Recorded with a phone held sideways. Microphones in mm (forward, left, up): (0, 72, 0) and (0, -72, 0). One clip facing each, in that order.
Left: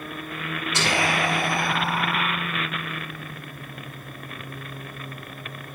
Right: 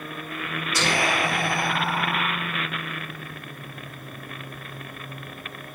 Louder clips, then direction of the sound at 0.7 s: Even; 25° left (ahead or behind).